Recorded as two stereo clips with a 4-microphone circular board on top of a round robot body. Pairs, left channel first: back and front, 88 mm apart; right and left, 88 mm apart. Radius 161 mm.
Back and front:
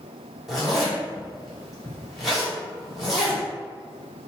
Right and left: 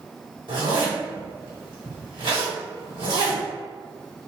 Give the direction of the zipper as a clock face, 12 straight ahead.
9 o'clock.